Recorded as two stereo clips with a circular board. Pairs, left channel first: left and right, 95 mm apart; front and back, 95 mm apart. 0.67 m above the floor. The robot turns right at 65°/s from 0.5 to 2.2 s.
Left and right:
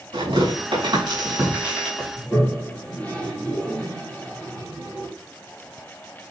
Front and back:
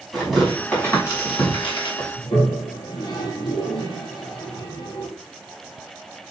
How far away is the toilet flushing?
About 4.5 m.